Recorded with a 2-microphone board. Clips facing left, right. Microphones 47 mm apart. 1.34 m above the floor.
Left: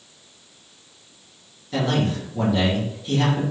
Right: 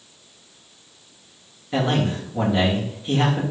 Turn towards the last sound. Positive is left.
turn(degrees=-25)  # may be behind; listen again after turning